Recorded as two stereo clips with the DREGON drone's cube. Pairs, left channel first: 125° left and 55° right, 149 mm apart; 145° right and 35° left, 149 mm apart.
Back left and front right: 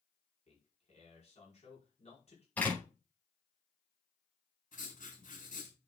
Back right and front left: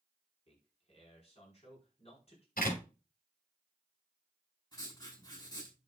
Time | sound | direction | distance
0.5 | a man speaking | 165° left | 4.5 m
2.6 | a door slam | 155° right | 5.5 m
4.7 | writing | 150° left | 6 m